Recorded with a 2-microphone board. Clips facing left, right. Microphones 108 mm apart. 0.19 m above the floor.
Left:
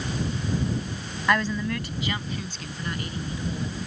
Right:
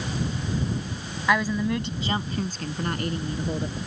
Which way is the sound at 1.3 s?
Centre (ahead or behind).